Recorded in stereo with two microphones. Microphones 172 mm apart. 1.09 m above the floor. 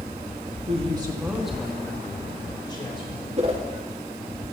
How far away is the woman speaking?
About 1.8 m.